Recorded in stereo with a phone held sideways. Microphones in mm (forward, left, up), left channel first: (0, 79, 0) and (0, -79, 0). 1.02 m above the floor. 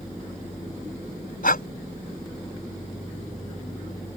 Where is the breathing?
70° left (ahead or behind).